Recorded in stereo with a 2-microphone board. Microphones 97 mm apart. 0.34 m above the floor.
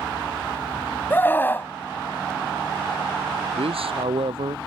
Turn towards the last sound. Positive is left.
turn(degrees=-85)